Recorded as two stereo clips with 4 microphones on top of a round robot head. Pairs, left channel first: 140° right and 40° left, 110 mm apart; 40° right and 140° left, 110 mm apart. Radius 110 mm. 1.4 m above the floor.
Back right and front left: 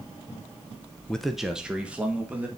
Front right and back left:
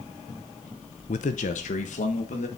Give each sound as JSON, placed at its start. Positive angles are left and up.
{"t": 1.1, "sound": "a man speaking", "azimuth_deg": -60, "distance_m": 0.5}